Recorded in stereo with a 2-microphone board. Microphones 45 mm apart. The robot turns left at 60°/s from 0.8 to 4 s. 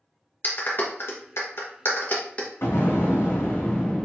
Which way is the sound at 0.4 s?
50° left (ahead or behind).